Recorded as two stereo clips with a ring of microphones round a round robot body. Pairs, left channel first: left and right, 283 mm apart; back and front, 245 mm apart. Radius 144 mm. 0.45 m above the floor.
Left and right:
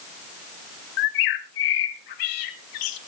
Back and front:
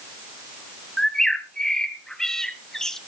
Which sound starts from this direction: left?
A bird, at 1.0 s.